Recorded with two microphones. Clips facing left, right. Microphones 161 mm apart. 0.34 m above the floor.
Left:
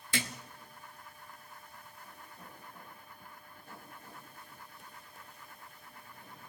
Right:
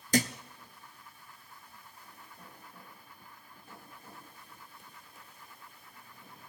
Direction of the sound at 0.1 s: 45° right (ahead or behind).